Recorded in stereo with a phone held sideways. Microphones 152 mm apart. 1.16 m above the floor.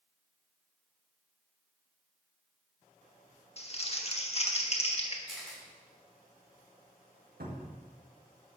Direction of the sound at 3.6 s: 45° left (ahead or behind).